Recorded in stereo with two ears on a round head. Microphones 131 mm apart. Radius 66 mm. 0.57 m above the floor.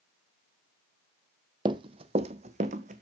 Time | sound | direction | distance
1.6 | running footsteps | 30° right (ahead or behind) | 0.9 m